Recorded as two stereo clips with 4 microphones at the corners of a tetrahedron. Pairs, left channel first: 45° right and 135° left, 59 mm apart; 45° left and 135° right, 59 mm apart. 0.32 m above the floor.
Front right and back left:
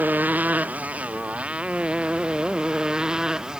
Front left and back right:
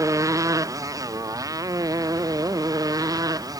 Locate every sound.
0.0 s a motorcycle: 165° right; by 3.6 s 145° right